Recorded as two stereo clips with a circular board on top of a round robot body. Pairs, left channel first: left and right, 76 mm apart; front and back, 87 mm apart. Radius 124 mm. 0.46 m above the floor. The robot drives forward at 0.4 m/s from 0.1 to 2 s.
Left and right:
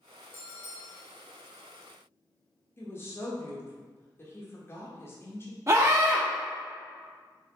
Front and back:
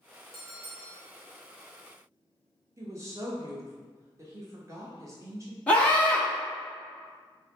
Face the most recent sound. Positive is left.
turn(degrees=-70)